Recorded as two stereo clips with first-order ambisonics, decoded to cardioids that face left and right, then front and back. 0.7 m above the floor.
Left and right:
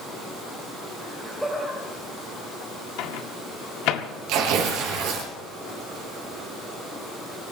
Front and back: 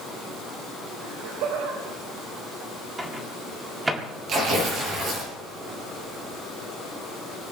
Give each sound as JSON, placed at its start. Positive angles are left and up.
{"t": 1.0, "sound": "laughter", "azimuth_deg": -170, "distance_m": 2.5}
{"t": 3.0, "sound": "a microwave", "azimuth_deg": 100, "distance_m": 1.4}
{"t": 4.3, "sound": "tearing paper", "azimuth_deg": -120, "distance_m": 6.5}